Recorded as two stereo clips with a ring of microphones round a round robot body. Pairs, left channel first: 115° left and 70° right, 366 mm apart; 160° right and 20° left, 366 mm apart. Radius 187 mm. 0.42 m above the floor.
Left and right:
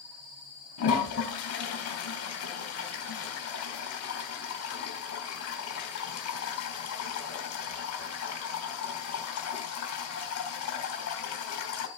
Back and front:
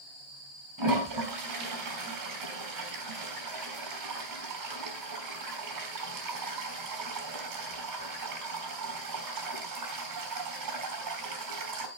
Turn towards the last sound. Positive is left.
turn(degrees=60)